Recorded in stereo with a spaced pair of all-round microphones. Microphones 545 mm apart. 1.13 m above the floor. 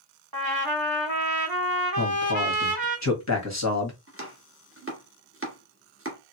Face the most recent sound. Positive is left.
turn(degrees=-25)  # may be behind; listen again after turning